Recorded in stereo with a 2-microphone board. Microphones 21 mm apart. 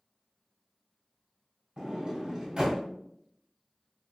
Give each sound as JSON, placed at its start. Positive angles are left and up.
{"t": 1.8, "sound": "a sliding door", "side_deg": -30, "distance_m": 1.4}